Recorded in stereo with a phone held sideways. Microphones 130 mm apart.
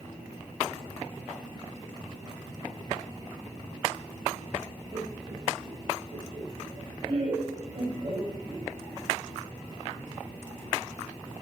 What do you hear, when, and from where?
4.9 s laughter: 45° right (ahead or behind), 2.5 m; by 8.7 s 40° right (ahead or behind), 7 m